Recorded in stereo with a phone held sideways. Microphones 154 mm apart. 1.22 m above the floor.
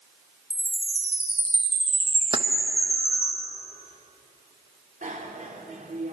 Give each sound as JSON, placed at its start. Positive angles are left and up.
{"t": 0.5, "sound": "a chime", "side_deg": 15, "distance_m": 5.5}
{"t": 2.3, "sound": "keys jangling", "side_deg": -35, "distance_m": 0.8}
{"t": 5.0, "sound": "a bicycle bell", "side_deg": -60, "distance_m": 2.5}